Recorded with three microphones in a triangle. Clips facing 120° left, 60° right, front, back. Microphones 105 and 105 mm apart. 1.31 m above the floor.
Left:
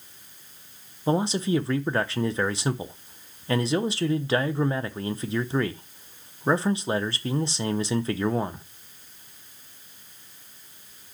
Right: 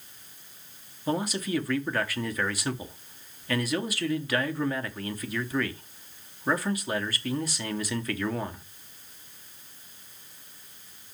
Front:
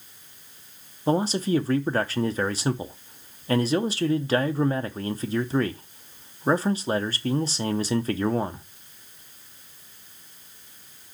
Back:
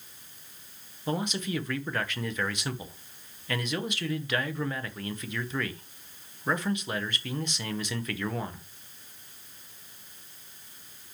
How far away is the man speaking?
About 0.8 m.